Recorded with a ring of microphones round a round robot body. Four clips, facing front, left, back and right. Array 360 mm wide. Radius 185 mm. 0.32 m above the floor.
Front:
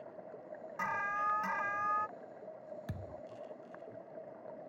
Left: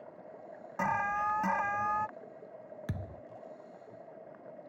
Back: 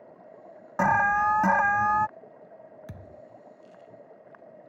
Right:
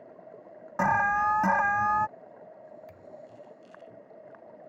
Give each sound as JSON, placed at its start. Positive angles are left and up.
{"t": 0.8, "sound": "an alarm", "azimuth_deg": -160}
{"t": 2.9, "sound": "a thud", "azimuth_deg": 85}